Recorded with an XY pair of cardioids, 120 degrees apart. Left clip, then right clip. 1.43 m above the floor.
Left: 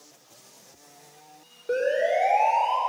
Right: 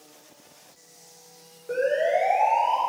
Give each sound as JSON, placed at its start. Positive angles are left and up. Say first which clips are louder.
{"t": 1.7, "sound": "a siren", "louder": "even", "azimuth_deg": 25, "distance_m": 6.0}